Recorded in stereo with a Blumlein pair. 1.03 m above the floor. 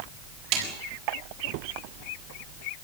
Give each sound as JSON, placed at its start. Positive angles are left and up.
{"t": 0.5, "sound": "a snare drum", "azimuth_deg": -35, "distance_m": 7.0}